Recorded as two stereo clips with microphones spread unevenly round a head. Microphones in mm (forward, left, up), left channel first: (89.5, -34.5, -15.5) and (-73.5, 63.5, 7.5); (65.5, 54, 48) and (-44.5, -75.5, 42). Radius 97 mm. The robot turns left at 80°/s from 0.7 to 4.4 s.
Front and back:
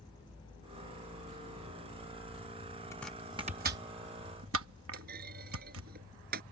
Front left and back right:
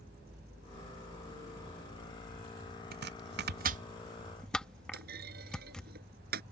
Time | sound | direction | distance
2.9 | chopping | 105° right | ?
4.9 | a clunk | 170° right | ?